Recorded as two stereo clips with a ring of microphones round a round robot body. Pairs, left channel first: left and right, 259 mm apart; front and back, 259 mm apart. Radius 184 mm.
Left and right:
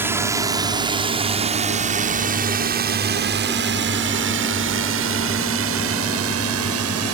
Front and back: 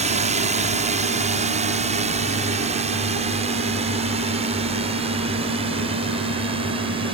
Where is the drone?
160° right; by 7.2 s 110° right.